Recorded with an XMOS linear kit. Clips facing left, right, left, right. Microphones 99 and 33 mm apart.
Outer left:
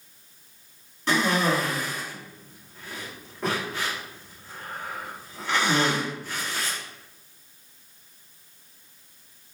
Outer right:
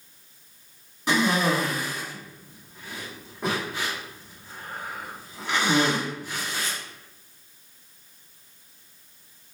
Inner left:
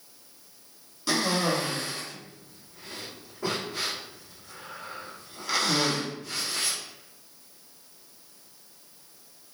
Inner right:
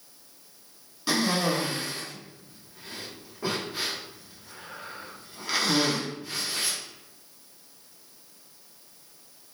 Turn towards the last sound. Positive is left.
turn(degrees=-15)  # may be behind; listen again after turning